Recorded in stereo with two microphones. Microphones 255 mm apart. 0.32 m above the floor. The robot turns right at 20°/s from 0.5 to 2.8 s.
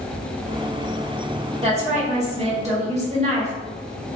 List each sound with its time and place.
1.6 s a woman speaking: 25° right (ahead or behind), 0.9 m